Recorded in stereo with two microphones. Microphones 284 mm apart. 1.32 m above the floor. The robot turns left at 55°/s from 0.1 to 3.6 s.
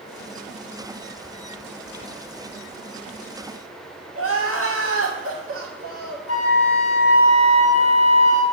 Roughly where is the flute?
Left.